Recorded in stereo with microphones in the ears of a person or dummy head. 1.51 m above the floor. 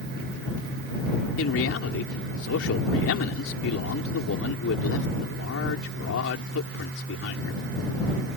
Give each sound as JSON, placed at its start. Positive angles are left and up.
{"t": 1.4, "sound": "a man speaking", "side_deg": 75}